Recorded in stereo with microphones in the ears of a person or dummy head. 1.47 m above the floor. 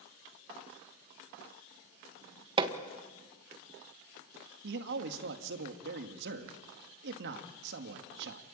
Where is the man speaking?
65° right (ahead or behind), 2 m.